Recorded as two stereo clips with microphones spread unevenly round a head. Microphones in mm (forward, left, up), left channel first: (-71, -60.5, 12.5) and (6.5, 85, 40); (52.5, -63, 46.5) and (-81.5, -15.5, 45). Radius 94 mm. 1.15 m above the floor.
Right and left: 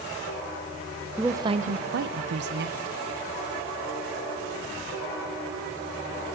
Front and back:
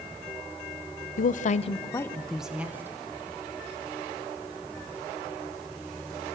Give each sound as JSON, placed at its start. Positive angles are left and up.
{"t": 1.2, "sound": "a woman speaking", "azimuth_deg": -30, "distance_m": 0.8}